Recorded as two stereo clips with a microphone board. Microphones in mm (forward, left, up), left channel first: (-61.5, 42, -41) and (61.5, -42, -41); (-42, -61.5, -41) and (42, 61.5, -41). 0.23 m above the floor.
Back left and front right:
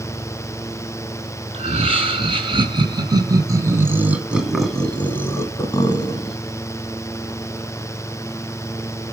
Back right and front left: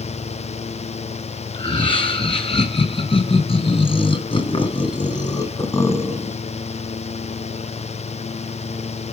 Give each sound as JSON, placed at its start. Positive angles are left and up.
{"t": 1.5, "sound": "laughter", "azimuth_deg": -75, "distance_m": 2.5}